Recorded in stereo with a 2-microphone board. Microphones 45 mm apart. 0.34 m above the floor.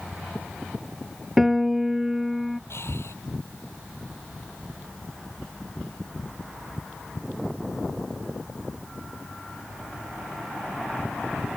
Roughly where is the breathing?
Left.